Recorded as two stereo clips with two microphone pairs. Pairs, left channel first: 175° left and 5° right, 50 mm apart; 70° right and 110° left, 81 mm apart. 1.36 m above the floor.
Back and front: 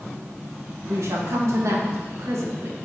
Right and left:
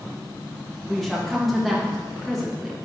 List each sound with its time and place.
0.9 s a woman speaking: 15° left, 2 m